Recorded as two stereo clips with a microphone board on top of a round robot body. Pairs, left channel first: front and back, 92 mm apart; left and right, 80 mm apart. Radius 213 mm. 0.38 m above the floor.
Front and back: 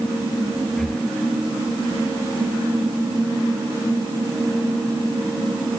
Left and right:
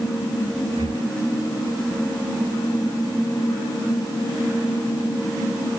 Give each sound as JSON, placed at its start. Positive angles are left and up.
{"t": 0.8, "sound": "breathing", "azimuth_deg": -85}